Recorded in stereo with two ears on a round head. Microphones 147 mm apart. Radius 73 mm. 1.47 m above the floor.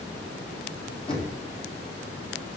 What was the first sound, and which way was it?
Knocking, 30° left (ahead or behind).